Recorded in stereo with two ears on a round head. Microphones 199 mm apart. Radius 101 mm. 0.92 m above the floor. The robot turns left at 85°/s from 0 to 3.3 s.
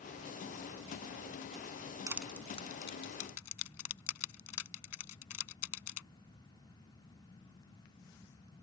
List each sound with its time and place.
2.1 s crushing: 15° right (ahead or behind); by 6.0 s 75° left (ahead or behind)